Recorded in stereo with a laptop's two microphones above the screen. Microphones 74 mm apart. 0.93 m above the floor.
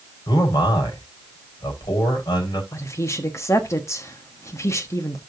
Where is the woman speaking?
40° left (ahead or behind), 1.2 m.